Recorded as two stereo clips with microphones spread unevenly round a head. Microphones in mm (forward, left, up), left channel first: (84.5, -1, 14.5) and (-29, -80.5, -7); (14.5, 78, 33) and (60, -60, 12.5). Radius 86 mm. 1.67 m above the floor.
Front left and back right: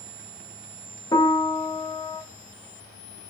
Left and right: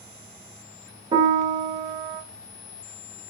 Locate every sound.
1.1 s a piano: 15° right, 0.6 m